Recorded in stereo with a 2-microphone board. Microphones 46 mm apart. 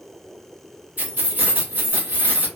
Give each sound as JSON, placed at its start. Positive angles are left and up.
{"t": 1.0, "sound": "keys jangling", "side_deg": -40, "distance_m": 1.0}